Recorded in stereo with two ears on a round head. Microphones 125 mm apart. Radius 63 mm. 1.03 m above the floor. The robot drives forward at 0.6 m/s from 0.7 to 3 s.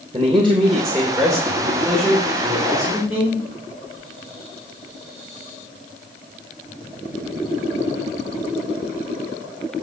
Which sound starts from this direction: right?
A man speaking, at 0.1 s.